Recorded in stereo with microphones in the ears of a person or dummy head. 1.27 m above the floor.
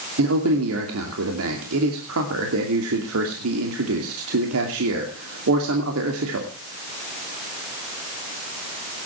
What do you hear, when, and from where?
0.2 s a man speaking: 85° right, 2.5 m